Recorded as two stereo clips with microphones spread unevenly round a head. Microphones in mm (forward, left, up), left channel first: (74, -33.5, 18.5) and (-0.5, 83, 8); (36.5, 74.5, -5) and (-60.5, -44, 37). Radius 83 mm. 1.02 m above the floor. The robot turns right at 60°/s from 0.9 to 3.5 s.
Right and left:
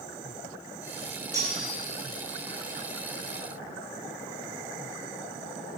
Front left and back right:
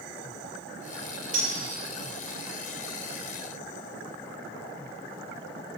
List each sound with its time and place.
1.3 s cutlery clinking: 130° right, 4 m; by 1.8 s 105° right, 4 m